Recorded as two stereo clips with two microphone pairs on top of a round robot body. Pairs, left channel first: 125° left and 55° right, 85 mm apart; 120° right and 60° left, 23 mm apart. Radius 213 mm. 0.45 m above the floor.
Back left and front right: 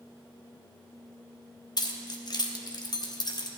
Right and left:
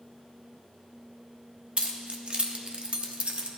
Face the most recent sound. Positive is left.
turn(degrees=95)